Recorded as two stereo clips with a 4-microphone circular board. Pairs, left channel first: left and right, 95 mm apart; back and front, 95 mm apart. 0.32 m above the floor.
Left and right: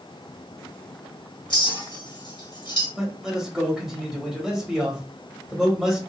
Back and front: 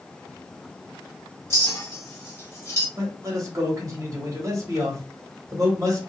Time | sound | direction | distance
1.5 | a clink | 120° left | 1.3 m
3.0 | a man speaking | 10° right | 1.6 m